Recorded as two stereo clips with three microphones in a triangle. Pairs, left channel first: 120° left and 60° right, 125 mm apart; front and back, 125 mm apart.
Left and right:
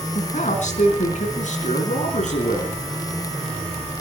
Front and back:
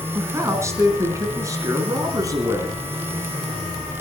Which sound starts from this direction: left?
A man speaking, at 0.1 s.